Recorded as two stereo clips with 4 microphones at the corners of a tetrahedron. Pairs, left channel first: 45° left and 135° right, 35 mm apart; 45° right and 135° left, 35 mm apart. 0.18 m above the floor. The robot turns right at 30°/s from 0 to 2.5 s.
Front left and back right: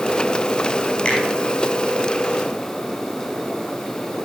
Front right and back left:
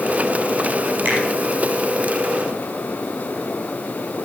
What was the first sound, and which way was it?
A finger snap, 105° left.